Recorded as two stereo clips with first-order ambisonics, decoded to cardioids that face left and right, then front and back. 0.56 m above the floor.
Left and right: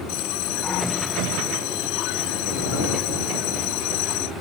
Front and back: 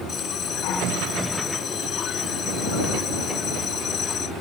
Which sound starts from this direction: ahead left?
A bell, at 0.1 s.